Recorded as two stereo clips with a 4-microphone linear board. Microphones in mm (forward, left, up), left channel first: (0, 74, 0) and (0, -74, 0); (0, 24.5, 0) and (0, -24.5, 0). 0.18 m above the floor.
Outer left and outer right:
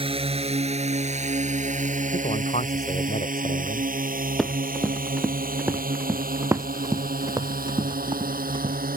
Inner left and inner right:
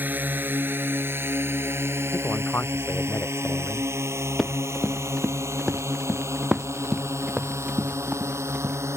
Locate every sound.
0.0 s a drone: 40° right (ahead or behind); by 9.0 s 75° right (ahead or behind)
2.1 s a man speaking: 50° left (ahead or behind)
4.4 s running footsteps: centre (ahead or behind); by 8.8 s 35° right (ahead or behind)